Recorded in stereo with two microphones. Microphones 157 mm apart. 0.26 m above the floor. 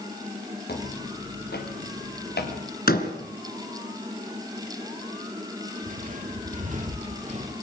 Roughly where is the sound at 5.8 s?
Right.